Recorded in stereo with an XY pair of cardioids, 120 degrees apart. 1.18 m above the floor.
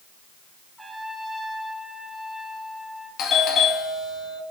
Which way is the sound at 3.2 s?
60° left.